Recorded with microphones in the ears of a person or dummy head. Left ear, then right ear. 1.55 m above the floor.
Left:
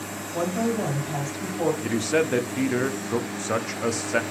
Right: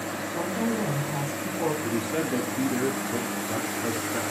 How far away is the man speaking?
About 0.5 m.